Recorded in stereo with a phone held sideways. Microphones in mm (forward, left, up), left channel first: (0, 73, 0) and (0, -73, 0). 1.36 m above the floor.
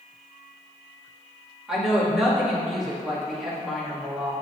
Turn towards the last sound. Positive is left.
turn(degrees=-5)  # may be behind; listen again after turning